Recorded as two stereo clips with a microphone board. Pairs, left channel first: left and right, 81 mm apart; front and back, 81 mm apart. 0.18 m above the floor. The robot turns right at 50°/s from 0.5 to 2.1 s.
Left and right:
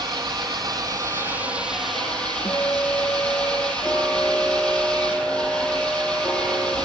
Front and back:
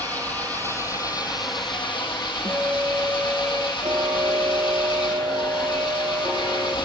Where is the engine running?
70° right, 3.5 m; by 6.9 s 10° left, 3.5 m.